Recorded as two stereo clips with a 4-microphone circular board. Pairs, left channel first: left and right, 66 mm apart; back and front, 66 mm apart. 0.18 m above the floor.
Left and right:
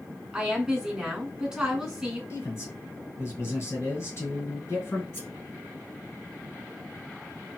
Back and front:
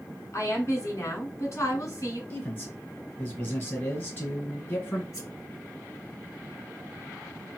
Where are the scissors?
145° left, 2.5 m.